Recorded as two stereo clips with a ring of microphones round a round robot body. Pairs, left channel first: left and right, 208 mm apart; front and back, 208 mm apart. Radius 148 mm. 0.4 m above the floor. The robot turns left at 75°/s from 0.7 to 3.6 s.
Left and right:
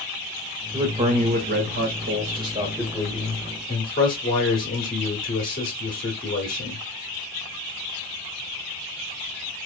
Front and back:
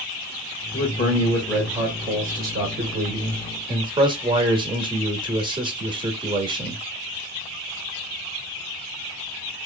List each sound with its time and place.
0.7 s a man speaking: 25° right, 1.1 m; by 6.8 s 120° left, 1.1 m